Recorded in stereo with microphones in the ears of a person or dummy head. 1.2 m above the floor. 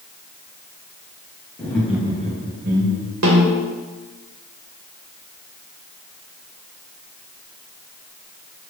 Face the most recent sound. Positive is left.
turn(degrees=-75)  # may be behind; listen again after turning